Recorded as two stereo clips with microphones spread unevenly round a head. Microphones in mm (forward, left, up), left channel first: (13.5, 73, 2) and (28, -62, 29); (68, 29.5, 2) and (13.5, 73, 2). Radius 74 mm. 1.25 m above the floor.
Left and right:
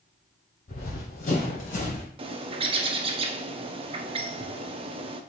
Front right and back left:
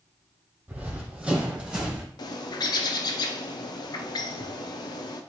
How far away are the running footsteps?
About 1.9 m.